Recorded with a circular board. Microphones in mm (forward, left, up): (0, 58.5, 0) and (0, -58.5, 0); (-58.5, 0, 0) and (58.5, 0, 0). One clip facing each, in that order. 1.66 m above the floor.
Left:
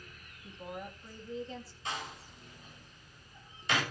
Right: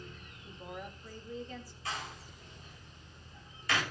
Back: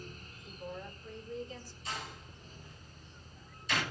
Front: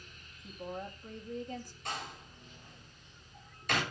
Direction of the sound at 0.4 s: 30° left.